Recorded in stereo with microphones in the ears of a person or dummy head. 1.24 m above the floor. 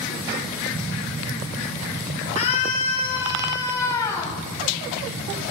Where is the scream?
55° left (ahead or behind), 4.5 m; by 4.4 s 25° left (ahead or behind), 5.5 m.